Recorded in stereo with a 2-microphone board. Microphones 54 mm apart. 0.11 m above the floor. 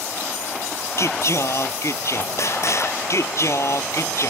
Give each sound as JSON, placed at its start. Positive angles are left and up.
{"t": 1.0, "sound": "singing", "side_deg": 65}